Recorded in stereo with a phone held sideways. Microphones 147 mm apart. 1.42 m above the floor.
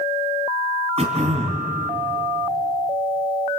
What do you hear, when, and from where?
1.0 s throat clearing: 45° right (ahead or behind), 3 m